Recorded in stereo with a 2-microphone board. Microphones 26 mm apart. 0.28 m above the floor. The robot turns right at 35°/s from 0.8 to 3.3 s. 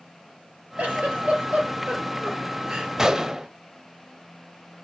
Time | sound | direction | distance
0.8 | a giggle | 75° right (ahead or behind) | 4.5 m
3.0 | a gunshot | 20° right (ahead or behind) | 0.6 m